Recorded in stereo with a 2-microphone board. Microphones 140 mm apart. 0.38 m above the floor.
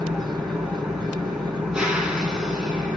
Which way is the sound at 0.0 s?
5° right (ahead or behind).